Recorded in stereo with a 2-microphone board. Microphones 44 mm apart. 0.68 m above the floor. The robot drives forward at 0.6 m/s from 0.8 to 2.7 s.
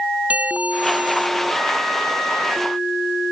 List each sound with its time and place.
0.3 s a bell: 35° right (ahead or behind)